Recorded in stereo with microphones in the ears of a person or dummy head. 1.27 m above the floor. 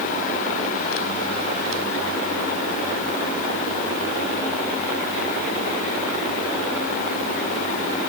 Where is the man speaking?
No man speaking in this recording.